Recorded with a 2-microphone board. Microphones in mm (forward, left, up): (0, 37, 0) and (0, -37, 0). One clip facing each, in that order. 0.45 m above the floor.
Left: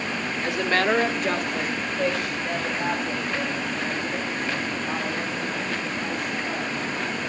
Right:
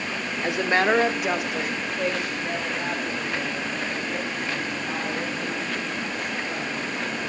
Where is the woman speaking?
20° right (ahead or behind), 1.1 m; by 7.2 s 10° left (ahead or behind), 7 m.